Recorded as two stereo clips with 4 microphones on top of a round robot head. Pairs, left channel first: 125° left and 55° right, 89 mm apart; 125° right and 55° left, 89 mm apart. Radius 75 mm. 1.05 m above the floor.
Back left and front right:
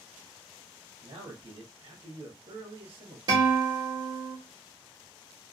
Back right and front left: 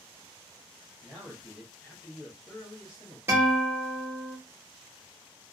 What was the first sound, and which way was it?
A man speaking, 20° right.